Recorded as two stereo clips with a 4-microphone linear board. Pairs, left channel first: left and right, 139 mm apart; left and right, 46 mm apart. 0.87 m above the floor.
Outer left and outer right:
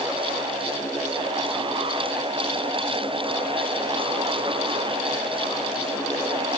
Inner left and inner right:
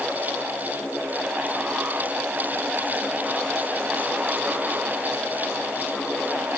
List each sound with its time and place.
Only background noise.